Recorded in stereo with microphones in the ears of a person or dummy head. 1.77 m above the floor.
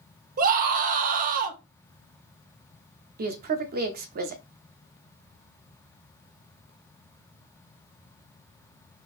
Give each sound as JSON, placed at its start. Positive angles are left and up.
{"t": 0.4, "sound": "a scream", "side_deg": -45, "distance_m": 0.7}
{"t": 3.2, "sound": "a woman speaking", "side_deg": -50, "distance_m": 0.6}